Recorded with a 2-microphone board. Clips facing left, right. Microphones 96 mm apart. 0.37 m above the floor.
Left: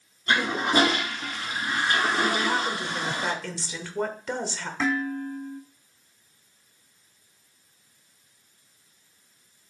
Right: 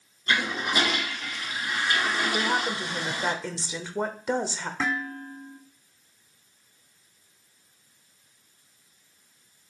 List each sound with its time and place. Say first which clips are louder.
0.3 s a toilet flushing: left 3 dB; 35° left (ahead or behind), 1.0 m
2.3 s a woman speaking: even; 15° right (ahead or behind), 0.8 m
4.8 s dishes clattering: left 5 dB; 10° right (ahead or behind), 1.8 m